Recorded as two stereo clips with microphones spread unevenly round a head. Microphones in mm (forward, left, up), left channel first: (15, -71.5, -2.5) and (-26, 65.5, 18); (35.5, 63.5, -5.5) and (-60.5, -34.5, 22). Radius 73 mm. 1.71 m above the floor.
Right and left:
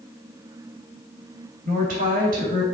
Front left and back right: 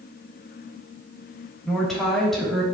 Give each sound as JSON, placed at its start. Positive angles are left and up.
{"t": 1.6, "sound": "a woman speaking", "azimuth_deg": 135, "distance_m": 3.0}